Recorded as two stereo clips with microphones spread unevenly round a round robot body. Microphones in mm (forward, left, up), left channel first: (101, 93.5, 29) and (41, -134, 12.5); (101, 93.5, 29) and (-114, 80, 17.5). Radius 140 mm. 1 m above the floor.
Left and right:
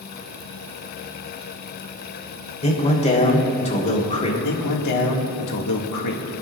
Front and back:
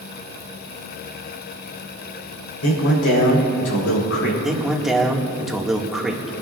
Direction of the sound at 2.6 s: 15° left.